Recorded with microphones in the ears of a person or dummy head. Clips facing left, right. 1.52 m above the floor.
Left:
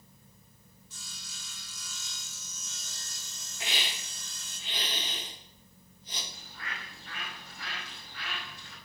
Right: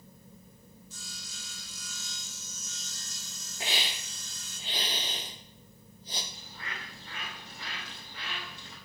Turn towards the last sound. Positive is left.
turn(degrees=-25)  # may be behind; listen again after turning